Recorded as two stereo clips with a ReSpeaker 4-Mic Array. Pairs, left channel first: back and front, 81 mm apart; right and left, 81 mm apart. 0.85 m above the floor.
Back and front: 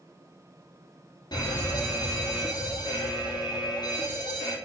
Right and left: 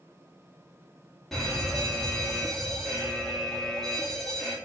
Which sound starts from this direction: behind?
A fire alarm, at 1.3 s.